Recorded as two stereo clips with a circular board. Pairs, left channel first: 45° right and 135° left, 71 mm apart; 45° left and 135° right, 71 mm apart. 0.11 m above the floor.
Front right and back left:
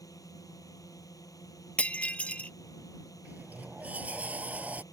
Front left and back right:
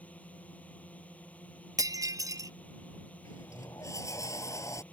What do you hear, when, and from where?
0.0 s a drone: 25° right
1.8 s breaking glass: 115° right
3.2 s a sliding door: 70° left